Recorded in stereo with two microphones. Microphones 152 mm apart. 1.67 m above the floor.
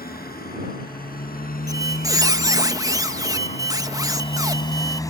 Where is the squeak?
25° right (ahead or behind).